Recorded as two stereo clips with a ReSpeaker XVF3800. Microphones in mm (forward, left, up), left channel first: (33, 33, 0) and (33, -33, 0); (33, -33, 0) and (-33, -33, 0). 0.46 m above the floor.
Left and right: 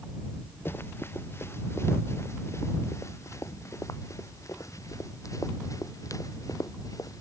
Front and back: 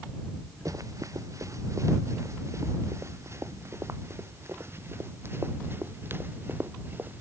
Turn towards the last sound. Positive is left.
turn(degrees=120)